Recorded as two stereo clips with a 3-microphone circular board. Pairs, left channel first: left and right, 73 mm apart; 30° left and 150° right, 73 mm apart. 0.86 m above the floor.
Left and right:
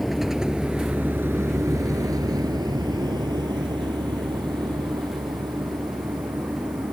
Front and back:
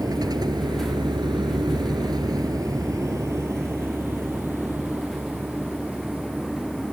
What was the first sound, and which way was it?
A vehicle, straight behind.